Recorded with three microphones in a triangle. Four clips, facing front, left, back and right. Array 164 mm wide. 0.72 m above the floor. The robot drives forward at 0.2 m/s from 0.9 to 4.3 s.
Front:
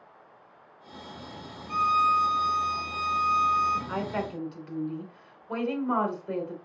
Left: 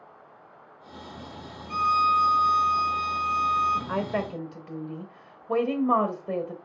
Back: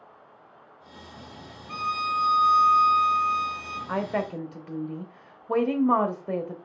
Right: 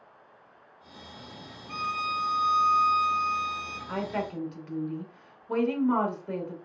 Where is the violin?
150° right, 1.9 m; by 3.8 s 155° right, 2.5 m.